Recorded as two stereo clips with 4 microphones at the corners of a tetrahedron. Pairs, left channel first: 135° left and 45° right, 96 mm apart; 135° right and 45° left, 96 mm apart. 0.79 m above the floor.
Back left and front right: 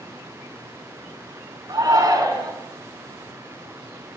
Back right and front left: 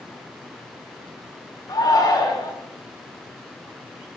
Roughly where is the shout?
Right.